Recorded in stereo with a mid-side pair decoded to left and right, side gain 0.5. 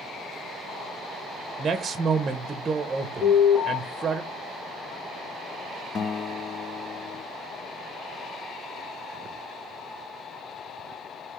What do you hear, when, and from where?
1.6 s a man speaking: 35° right, 0.7 m
3.2 s an alarm: 10° left, 3 m
6.0 s a guitar: 45° left, 0.8 m